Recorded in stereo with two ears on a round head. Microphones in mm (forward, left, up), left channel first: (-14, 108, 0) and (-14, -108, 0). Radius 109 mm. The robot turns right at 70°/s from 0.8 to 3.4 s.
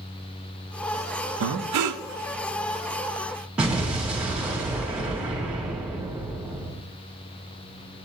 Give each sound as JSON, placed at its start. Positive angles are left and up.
{"t": 1.4, "sound": "breathing", "azimuth_deg": -115, "distance_m": 0.6}
{"t": 3.6, "sound": "an explosion", "side_deg": -5, "distance_m": 2.5}